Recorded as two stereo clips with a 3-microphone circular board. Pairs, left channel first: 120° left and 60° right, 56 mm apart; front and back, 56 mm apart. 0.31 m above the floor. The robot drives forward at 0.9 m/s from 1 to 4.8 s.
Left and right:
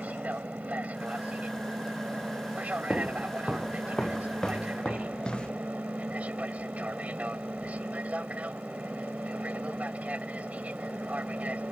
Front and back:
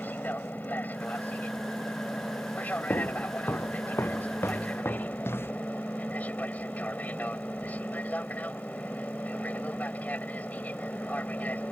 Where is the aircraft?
20° right; by 11.7 s 25° right.